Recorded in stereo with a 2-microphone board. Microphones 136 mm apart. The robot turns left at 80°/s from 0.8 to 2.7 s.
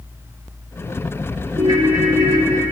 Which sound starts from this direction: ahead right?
A ringtone, at 1.6 s.